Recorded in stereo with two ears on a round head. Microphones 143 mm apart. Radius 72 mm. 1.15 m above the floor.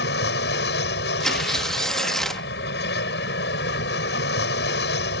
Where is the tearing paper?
Centre (ahead or behind).